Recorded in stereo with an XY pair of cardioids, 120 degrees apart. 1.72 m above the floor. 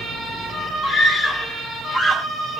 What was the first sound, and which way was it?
A scream, 40° left.